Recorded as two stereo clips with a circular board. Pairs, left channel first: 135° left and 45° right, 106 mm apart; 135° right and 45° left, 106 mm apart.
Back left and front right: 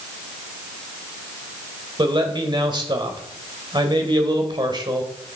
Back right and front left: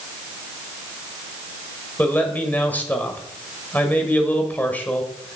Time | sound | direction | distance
2.0 | a man speaking | 65° right | 1.8 m